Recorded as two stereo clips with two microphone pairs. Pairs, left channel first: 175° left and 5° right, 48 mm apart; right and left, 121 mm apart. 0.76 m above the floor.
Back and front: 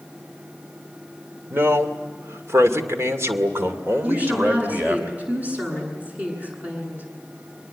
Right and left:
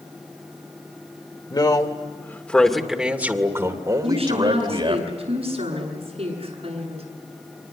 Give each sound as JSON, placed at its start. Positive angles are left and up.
{"t": 1.5, "sound": "a man speaking", "azimuth_deg": -40, "distance_m": 2.5}
{"t": 4.0, "sound": "a woman speaking", "azimuth_deg": 55, "distance_m": 9.0}